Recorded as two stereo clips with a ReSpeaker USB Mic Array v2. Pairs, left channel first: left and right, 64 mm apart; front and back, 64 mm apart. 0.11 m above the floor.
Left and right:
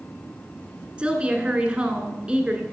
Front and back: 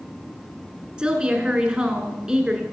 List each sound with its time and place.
1.0 s a woman speaking: 125° right, 1.3 m